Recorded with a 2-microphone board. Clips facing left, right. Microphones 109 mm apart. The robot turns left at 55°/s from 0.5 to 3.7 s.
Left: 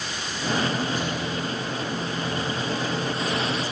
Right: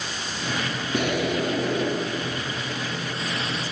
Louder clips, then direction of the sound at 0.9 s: Right 4 dB; 65° right.